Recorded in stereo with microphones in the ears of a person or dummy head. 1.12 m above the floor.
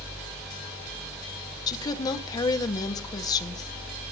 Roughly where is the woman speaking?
Left.